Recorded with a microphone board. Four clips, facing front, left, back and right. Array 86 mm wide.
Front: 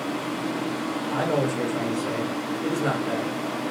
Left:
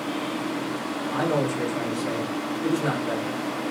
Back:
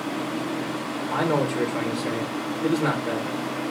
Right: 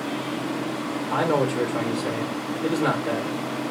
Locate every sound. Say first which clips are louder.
1.1 s a man speaking: right 3 dB, back 2 dB; 125° right, 0.9 m